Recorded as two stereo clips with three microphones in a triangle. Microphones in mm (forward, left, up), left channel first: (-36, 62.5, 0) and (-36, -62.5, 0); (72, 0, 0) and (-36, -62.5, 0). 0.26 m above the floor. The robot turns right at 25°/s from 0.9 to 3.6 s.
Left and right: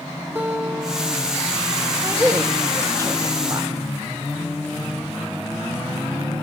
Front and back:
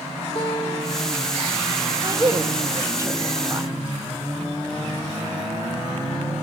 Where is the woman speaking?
140° right, 1.0 m; by 3.7 s 105° right, 1.0 m.